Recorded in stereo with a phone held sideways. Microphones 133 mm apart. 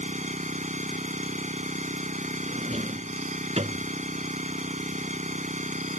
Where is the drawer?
55° right (ahead or behind).